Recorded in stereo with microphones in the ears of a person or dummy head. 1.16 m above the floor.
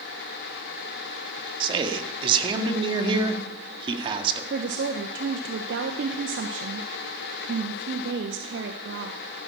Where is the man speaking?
30° right (ahead or behind), 1.8 m.